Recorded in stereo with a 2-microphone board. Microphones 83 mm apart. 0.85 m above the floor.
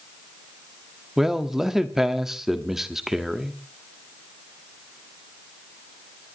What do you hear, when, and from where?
1.2 s a man speaking: 5° right (ahead or behind), 1.3 m